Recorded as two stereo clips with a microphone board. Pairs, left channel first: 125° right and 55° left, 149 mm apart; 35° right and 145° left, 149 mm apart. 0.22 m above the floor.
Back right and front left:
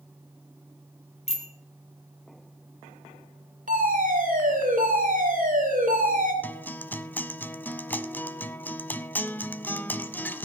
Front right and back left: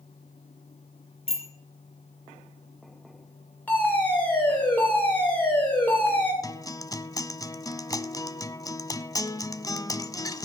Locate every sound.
1.3 s a bicycle bell: 80° right, 3 m
3.7 s a fire alarm: 45° left, 7 m
6.4 s a guitar: 60° right, 0.7 m